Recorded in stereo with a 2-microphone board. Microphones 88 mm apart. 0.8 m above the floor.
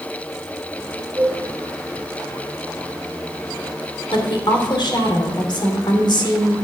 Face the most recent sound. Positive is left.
turn(degrees=65)  # may be behind; listen again after turning